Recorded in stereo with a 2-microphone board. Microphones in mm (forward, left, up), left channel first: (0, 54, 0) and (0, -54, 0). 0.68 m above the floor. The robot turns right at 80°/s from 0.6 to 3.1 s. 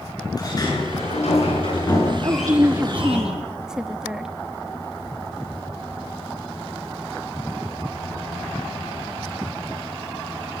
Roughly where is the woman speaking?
Right.